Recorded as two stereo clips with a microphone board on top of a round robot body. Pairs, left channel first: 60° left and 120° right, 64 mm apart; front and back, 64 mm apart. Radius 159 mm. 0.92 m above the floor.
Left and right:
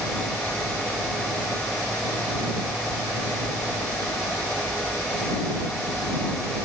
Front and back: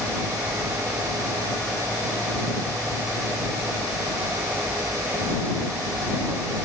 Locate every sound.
Only background noise.